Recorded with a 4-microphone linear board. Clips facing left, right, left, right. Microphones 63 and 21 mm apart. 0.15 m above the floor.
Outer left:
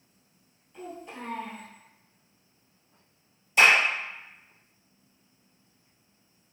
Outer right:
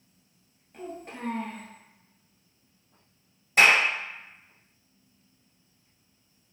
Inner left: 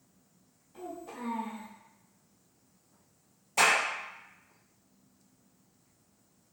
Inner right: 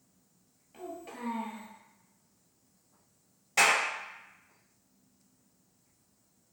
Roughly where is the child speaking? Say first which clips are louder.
Outer right 1 dB, inner left 1 dB; right.